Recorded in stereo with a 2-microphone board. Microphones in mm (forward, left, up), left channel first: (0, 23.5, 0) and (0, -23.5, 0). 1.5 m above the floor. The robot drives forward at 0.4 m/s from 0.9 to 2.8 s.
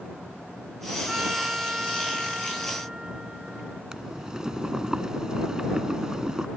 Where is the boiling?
15° right (ahead or behind).